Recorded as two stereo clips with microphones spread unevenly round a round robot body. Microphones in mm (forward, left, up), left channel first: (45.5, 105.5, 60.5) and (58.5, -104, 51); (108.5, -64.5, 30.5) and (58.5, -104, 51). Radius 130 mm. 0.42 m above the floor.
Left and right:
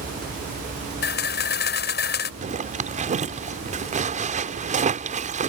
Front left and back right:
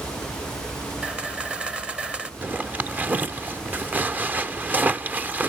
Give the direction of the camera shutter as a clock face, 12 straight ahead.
8 o'clock.